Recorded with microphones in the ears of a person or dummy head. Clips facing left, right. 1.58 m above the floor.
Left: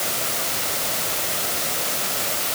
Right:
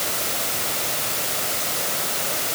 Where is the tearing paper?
No tearing paper in this recording.